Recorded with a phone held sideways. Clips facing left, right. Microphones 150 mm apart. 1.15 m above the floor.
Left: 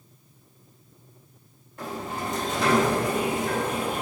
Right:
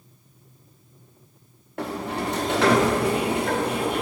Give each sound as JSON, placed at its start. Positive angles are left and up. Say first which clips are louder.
{"t": 1.8, "sound": "a sliding door", "louder": "right 4 dB", "side_deg": -70, "distance_m": 1.2}